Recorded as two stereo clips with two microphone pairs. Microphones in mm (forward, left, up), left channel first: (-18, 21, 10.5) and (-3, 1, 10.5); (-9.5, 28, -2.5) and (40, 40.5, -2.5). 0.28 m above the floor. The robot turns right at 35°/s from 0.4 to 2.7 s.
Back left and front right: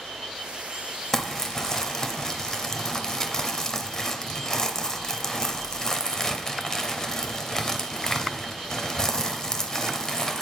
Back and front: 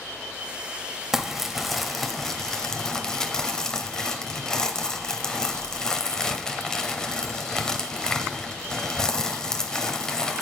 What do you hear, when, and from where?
1.1 s crumpling: 75° left, 0.7 m; by 10.4 s 130° left, 0.7 m